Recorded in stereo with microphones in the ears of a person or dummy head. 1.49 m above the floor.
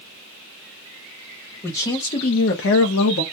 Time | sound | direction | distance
1.6 | a man speaking | 15° left (ahead or behind) | 0.9 m